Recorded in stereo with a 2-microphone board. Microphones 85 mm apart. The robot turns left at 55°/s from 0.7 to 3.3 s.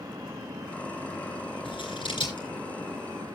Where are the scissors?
75° left (ahead or behind), 9.5 m; by 2.5 s 55° left (ahead or behind), 9.5 m.